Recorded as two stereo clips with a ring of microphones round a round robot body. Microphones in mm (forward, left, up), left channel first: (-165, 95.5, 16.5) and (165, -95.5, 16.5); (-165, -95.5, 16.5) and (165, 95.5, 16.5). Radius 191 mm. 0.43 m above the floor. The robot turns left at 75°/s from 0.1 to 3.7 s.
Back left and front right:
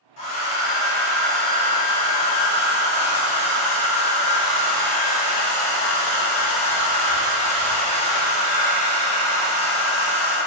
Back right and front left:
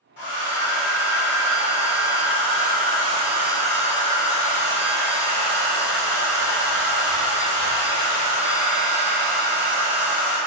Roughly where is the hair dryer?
Behind.